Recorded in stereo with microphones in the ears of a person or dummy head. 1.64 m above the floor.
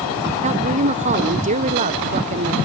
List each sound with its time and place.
0.4 s a woman speaking: 40° right (ahead or behind)